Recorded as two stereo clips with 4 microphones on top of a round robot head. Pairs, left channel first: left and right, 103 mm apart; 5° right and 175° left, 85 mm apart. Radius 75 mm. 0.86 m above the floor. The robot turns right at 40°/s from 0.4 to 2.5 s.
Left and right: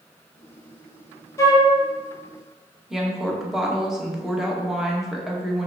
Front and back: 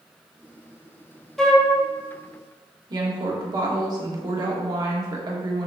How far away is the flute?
About 1.0 m.